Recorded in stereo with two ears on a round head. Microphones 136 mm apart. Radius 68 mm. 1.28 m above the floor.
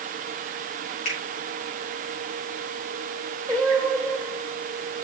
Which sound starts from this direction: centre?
Singing, at 3.5 s.